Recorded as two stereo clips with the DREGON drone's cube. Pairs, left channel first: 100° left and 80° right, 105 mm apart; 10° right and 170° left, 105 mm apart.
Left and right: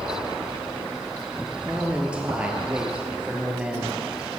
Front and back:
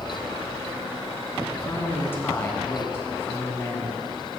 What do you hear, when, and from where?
1.6 s a man speaking: 20° right, 1.1 m